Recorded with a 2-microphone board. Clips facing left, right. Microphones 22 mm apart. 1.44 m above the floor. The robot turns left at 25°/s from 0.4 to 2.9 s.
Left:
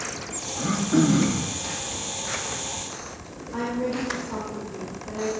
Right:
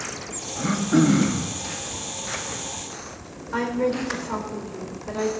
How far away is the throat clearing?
About 1.2 m.